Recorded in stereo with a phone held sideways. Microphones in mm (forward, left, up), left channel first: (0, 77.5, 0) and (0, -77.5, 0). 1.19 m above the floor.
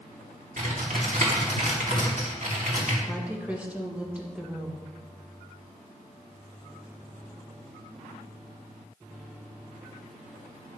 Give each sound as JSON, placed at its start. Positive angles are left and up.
{"t": 0.6, "sound": "typing on a keyboard", "side_deg": -60, "distance_m": 2.0}
{"t": 3.1, "sound": "a woman speaking", "side_deg": -10, "distance_m": 1.6}